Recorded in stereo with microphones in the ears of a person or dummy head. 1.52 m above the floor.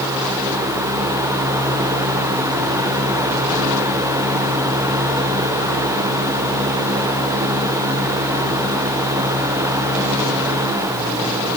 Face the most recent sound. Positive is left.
No sound to turn to.